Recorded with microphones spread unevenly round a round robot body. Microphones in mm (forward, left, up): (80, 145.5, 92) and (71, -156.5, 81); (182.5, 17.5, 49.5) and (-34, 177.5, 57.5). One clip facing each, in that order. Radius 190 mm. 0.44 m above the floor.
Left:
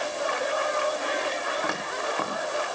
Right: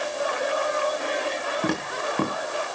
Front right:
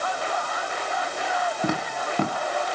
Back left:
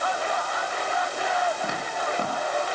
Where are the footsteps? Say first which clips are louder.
Right 4 dB, front right 3 dB; 35° right, 3 m.